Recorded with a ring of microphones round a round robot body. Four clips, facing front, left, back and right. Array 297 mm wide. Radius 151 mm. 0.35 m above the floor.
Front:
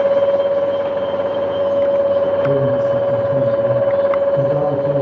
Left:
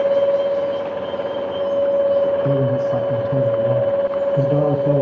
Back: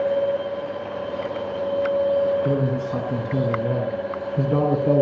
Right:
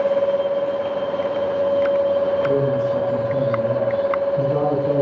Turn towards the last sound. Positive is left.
turn(degrees=60)